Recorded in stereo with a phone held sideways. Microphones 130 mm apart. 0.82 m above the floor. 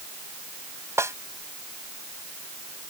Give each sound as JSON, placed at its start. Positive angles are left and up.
{"t": 1.0, "sound": "a snare drum", "side_deg": -20}